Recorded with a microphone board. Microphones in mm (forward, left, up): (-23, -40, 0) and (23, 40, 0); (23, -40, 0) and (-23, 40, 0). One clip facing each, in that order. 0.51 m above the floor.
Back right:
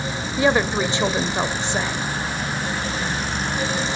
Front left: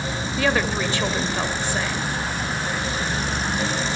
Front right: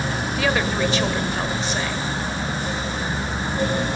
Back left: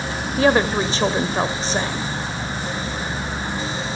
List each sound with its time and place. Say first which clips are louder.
0.4 s a woman speaking: back right 4 dB, back left 6 dB; 175° left, 2 m